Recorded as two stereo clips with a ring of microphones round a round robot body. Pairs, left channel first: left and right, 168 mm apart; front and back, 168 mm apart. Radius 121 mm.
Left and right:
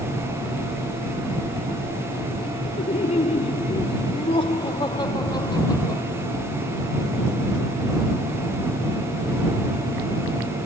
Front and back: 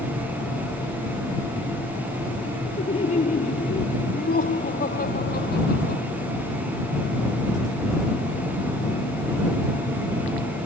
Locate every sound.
2.8 s laughter: 50° left; by 6.0 s 20° left